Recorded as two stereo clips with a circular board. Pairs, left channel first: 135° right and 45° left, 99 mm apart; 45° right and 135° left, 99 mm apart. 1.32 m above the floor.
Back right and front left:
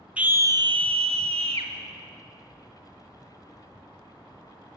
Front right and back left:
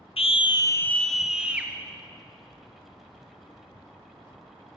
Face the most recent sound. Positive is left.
turn(degrees=60)